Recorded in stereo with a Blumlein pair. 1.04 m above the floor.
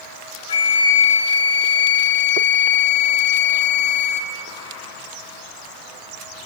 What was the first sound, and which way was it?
A flute, 70° left.